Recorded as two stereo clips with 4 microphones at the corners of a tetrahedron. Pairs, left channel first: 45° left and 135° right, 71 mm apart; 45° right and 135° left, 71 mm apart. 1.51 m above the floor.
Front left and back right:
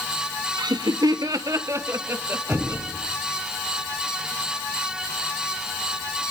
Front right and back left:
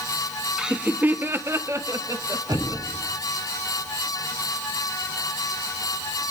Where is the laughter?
145° right, 1.1 m; by 2.8 s 165° left, 2.5 m.